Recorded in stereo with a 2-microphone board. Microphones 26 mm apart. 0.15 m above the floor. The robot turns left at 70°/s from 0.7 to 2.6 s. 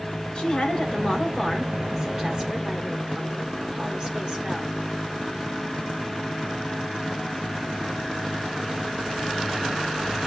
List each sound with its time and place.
0.3 s a woman speaking: 55° left, 2 m; by 4.8 s 75° right, 2 m